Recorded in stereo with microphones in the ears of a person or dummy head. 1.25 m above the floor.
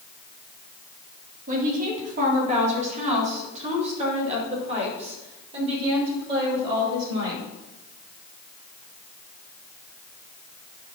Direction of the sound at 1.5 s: 40° right (ahead or behind).